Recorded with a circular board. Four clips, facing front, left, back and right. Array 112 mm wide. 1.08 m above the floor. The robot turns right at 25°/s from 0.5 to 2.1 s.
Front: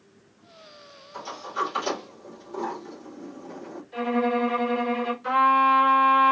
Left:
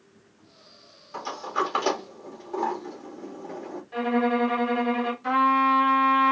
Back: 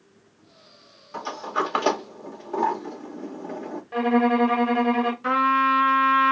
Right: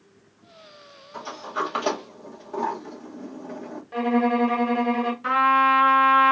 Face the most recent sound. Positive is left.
turn(degrees=-130)